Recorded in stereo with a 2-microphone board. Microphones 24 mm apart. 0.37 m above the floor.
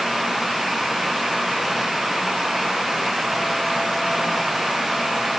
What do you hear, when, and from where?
Only background noise.